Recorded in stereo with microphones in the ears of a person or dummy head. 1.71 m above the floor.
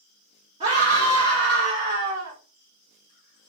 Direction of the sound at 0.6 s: 30° right (ahead or behind).